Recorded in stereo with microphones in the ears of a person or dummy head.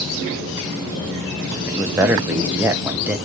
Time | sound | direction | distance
1.7 | a man speaking | 10° right (ahead or behind) | 0.7 m